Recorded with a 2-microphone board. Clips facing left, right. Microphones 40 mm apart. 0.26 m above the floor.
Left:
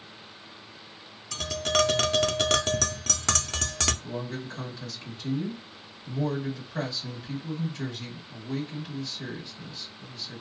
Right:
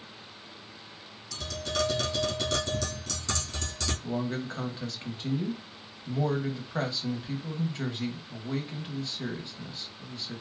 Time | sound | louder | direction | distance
1.3 | tapping | left 6 dB | 70° left (ahead or behind) | 0.5 m
4.0 | a man speaking | right 3 dB | 35° right (ahead or behind) | 1.0 m